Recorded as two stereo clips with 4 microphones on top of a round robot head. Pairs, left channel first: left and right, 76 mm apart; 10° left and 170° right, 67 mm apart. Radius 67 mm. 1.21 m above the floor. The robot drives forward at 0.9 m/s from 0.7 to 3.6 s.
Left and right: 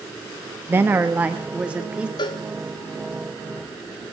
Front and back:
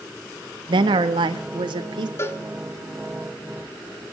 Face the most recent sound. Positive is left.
turn(degrees=105)